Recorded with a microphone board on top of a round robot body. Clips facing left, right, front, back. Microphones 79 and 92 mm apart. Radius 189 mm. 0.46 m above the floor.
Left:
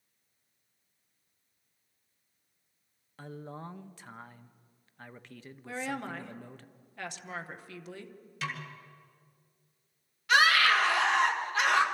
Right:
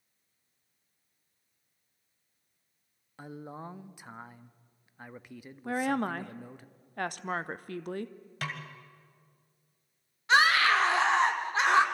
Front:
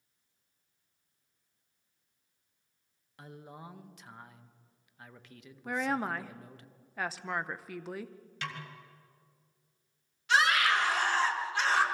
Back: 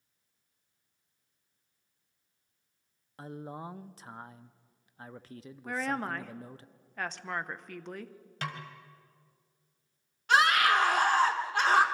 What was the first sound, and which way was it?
A man speaking, 160° right.